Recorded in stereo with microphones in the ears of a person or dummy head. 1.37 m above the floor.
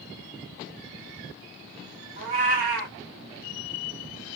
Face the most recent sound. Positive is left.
turn(degrees=-50)  # may be behind; listen again after turning